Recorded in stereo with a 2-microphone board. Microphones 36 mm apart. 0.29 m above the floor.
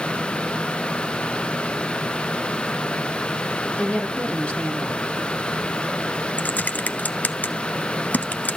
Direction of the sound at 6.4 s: 50° left (ahead or behind).